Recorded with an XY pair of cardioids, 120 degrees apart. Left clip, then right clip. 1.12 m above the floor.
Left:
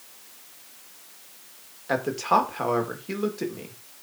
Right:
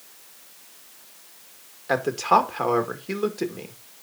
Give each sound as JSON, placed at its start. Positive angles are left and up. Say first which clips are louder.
{"t": 1.9, "sound": "a man speaking", "louder": "right 3 dB", "azimuth_deg": -15, "distance_m": 1.9}